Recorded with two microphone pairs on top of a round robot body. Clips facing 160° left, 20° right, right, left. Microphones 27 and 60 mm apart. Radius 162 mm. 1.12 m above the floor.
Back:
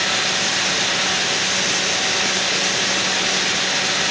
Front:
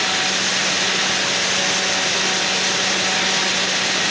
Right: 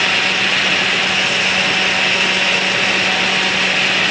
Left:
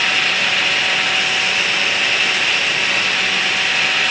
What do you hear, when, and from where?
Only background noise.